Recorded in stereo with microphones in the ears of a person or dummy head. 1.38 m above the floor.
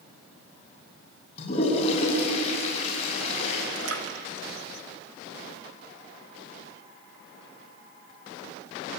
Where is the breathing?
No breathing in this recording.